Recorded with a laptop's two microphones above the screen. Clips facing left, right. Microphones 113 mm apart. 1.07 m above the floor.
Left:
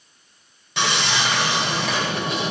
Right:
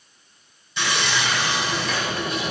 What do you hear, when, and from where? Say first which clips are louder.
0.8 s sawing: left 2 dB; 85° left, 6 m